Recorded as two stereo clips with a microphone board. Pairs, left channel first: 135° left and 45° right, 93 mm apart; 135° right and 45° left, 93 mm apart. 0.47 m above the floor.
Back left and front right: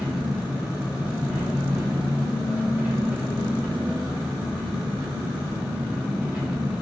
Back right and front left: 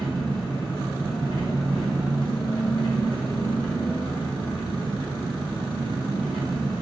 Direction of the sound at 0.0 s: 110° right.